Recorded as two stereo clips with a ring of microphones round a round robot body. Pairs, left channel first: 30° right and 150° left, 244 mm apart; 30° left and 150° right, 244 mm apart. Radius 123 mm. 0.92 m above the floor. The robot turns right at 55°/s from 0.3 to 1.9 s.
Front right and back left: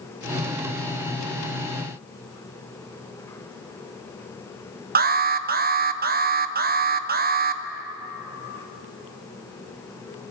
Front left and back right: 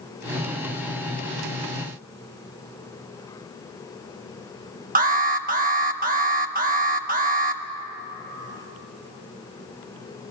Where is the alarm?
175° left, 0.8 m.